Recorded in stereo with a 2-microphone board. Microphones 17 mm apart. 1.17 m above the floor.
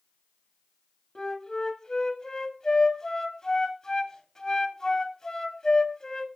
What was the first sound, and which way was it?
A flute, 50° left (ahead or behind).